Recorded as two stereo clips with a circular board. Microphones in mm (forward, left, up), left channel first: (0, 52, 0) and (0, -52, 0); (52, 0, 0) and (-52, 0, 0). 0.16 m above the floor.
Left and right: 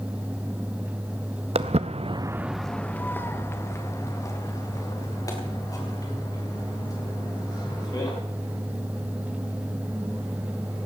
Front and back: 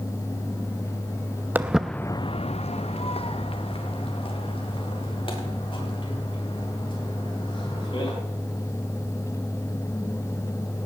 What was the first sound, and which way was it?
Footsteps, 110° right.